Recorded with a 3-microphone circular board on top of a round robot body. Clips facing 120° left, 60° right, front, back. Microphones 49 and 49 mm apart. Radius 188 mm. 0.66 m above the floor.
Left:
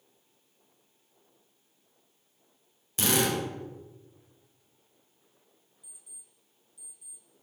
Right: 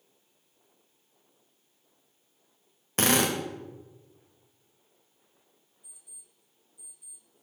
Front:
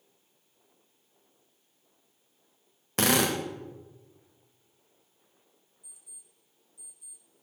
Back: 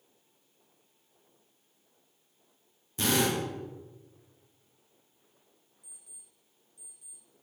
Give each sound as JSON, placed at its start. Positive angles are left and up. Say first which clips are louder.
{"t": 3.0, "sound": "a drill", "louder": "right 2 dB, front 2 dB", "azimuth_deg": -20, "distance_m": 1.5}
{"t": 5.8, "sound": "an alarm clock", "louder": "left 1 dB, even", "azimuth_deg": 140, "distance_m": 5.5}